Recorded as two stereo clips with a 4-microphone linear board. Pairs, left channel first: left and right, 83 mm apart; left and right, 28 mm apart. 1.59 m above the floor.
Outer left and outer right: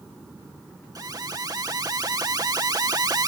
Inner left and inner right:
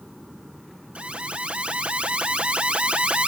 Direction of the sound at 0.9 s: 50° right (ahead or behind).